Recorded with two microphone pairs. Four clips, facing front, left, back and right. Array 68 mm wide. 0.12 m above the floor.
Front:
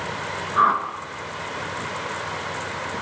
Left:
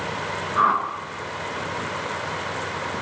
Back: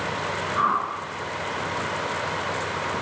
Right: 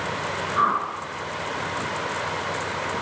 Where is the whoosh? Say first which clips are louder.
Left 2 dB, front 5 dB; 20° left, 1.1 m.